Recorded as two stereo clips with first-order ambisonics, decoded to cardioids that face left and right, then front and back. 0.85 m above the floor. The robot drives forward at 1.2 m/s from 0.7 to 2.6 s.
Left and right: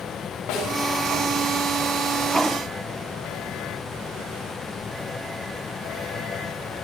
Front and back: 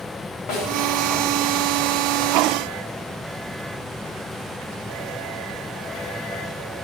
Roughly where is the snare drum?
Ahead left.